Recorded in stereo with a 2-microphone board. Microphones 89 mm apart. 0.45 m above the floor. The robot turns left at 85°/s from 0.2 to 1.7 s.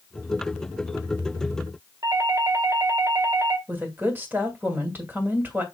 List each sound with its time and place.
2.0 s a doorbell: 45° right (ahead or behind), 1.8 m
3.7 s a woman speaking: 25° right (ahead or behind), 2.5 m